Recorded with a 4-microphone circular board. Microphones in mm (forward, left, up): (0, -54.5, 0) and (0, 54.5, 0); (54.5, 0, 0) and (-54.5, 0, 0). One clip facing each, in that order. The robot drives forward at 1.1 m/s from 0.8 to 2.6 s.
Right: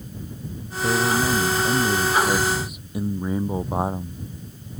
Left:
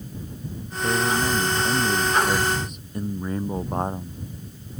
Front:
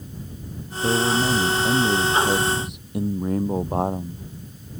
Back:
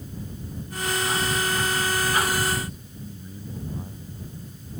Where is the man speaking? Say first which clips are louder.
Right 2 dB, front 6 dB; 5° right; by 4.8 s 10° right.